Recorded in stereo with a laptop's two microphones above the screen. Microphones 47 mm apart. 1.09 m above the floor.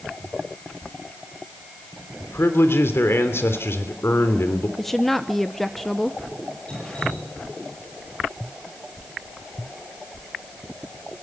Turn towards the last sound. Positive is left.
turn(degrees=20)  # may be behind; listen again after turning